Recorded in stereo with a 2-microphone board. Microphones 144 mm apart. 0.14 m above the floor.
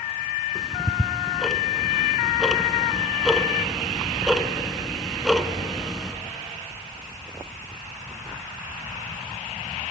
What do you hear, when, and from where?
0.6 s ticking: centre (ahead or behind), 0.7 m